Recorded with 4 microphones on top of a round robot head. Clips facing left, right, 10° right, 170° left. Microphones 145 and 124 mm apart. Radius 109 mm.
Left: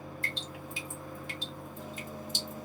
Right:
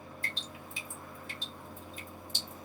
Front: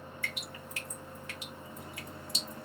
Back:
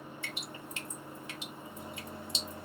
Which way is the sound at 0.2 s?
105° left.